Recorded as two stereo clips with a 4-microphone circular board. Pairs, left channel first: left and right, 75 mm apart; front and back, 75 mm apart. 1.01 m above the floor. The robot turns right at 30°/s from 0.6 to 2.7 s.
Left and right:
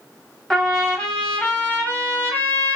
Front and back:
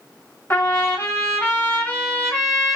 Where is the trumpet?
15° left, 1.0 m; by 2.8 s 80° left, 1.0 m.